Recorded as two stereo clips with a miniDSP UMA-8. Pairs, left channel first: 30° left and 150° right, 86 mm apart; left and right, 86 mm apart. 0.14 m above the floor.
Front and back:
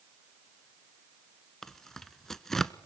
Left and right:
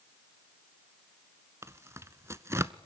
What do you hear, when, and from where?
1.6 s tearing paper: 50° right, 0.8 m